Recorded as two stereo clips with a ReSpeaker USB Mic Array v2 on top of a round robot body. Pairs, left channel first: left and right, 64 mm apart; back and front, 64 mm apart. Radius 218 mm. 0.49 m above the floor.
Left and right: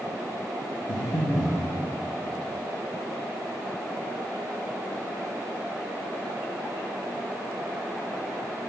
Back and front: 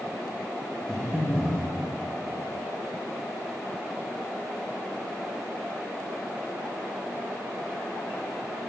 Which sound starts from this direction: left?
Breathing, at 0.9 s.